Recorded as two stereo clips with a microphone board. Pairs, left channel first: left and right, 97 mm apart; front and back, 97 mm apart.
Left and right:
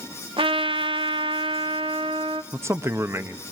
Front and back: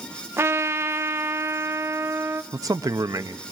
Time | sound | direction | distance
0.4 | a trumpet | 120° right | 0.6 m
2.5 | a man speaking | 145° right | 0.7 m